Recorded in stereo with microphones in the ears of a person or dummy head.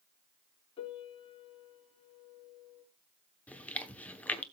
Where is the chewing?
5° left (ahead or behind), 1.0 m.